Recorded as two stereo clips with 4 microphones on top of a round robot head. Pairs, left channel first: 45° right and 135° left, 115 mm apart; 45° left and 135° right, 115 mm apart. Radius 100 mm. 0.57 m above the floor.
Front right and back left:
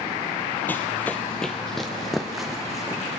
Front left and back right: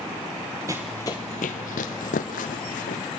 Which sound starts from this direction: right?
Running footsteps, at 0.7 s.